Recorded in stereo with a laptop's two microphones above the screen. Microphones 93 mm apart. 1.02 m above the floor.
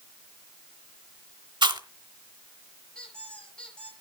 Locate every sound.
1.6 s chewing: 50° right (ahead or behind), 1.1 m
3.0 s a squeak: 10° left (ahead or behind), 4.5 m